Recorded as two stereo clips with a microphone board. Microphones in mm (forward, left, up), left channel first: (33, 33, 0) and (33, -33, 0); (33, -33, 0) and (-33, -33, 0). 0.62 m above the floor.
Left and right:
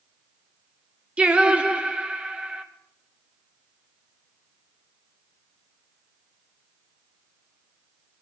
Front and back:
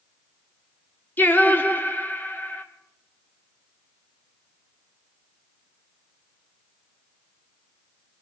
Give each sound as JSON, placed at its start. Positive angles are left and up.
{"t": 1.2, "sound": "singing", "azimuth_deg": -30, "distance_m": 1.2}